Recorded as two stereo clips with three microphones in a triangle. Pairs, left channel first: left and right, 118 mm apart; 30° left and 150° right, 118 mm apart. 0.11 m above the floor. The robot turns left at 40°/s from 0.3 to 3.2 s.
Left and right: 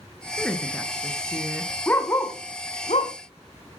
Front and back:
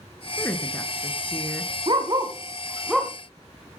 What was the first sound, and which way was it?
A woman speaking, 30° left.